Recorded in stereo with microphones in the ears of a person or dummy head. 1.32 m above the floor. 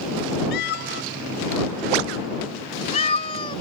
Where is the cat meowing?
60° left (ahead or behind); by 3.6 s 25° left (ahead or behind).